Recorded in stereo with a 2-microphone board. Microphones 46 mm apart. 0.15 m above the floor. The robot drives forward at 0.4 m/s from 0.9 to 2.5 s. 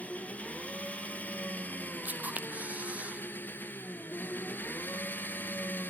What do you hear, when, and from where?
0.0 s an engine running: 30° left (ahead or behind), 1.7 m; by 5.9 s 45° left (ahead or behind), 1.2 m
2.0 s a camera shutter: 40° right (ahead or behind), 0.8 m; by 3.2 s 35° right (ahead or behind), 0.9 m